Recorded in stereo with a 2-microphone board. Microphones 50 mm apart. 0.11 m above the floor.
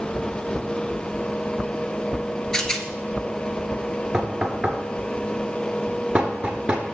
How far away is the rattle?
About 0.6 m.